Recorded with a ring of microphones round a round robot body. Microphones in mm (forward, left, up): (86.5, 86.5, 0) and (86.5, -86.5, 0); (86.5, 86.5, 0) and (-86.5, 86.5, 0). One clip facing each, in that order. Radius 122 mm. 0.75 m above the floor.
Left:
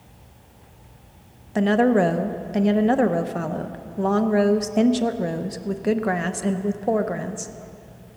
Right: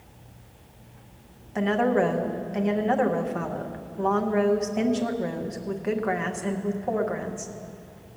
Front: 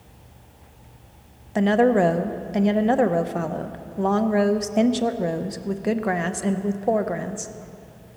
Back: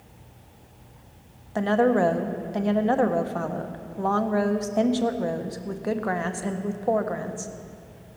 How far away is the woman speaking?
About 0.6 m.